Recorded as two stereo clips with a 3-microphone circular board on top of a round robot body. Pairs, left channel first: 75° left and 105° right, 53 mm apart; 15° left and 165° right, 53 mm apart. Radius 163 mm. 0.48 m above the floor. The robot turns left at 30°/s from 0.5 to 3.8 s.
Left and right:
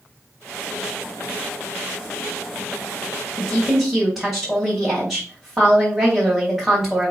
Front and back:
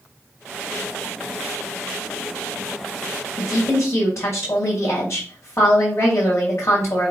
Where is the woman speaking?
5° right, 4 m; by 7.1 s 20° right, 4 m.